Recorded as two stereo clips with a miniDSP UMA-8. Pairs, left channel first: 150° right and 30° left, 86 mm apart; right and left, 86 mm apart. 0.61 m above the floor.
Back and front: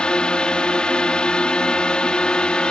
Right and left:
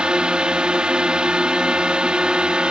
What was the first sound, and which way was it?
A drone, 150° left.